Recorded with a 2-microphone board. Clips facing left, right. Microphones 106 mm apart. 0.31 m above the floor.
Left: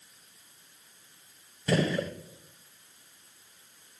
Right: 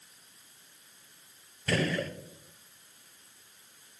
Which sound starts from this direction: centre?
A gunshot, at 1.7 s.